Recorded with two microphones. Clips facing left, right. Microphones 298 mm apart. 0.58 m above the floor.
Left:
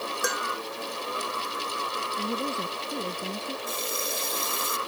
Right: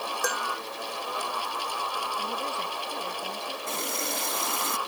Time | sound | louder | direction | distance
0.2 | dishes clattering | even | centre (ahead or behind) | ?
2.2 | a woman speaking | left 7 dB | 40° left (ahead or behind) | ?
3.7 | a running tap | even | 75° right (ahead or behind) | ?